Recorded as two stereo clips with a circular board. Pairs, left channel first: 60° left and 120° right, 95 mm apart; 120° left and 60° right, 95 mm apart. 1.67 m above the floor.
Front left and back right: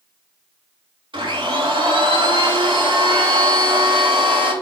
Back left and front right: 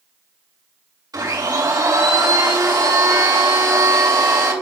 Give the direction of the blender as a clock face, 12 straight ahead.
4 o'clock.